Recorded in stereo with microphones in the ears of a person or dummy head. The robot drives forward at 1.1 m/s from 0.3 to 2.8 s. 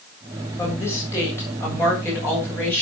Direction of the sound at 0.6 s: 20° left (ahead or behind).